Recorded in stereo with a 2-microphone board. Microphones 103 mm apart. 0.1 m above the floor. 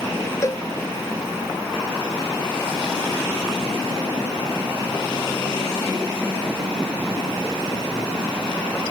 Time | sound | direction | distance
0.4 | a cowbell | 30° left (ahead or behind) | ?